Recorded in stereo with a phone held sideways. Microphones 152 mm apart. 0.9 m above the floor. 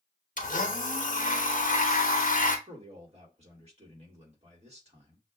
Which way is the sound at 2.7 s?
45° right (ahead or behind).